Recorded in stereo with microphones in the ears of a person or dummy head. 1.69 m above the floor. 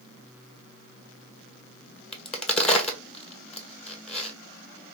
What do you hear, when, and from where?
2.1 s a crack: 10° left (ahead or behind), 1.0 m